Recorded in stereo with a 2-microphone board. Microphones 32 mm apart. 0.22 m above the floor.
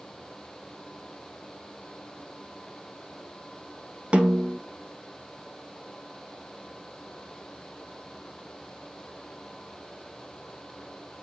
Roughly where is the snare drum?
Right.